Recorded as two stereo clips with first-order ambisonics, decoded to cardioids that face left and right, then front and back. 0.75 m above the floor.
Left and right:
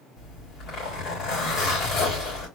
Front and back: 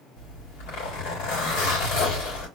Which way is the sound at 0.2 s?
35° left.